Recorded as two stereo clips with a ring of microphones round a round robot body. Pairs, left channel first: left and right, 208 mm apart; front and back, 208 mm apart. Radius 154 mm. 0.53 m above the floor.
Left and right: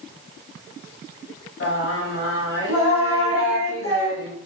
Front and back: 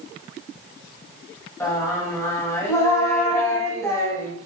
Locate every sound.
1.6 s singing: 75° left, 1.0 m